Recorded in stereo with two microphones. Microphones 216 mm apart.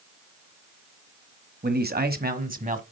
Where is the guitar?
No guitar in this recording.